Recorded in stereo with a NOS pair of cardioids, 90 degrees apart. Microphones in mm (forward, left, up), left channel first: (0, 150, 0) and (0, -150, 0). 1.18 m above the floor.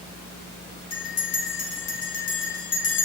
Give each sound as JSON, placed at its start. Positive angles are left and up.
{"t": 0.9, "sound": "a bell", "azimuth_deg": 55, "distance_m": 1.0}